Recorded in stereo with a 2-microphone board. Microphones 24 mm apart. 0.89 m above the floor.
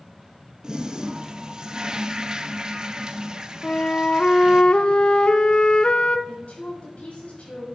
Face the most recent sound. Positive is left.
turn(degrees=60)  # may be behind; listen again after turning